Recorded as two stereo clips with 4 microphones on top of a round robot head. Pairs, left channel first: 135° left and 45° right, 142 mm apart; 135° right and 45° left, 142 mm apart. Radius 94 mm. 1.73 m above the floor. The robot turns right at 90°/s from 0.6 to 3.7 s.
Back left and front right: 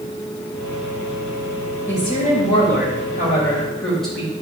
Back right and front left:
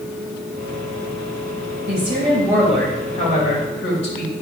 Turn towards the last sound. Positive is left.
turn(degrees=-140)